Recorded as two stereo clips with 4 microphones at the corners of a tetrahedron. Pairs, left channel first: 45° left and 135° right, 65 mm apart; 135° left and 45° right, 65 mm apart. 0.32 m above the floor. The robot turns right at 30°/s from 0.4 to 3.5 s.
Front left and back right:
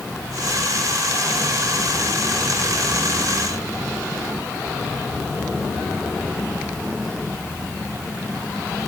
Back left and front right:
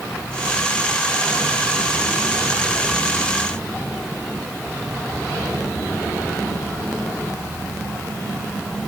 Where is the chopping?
No chopping in this recording.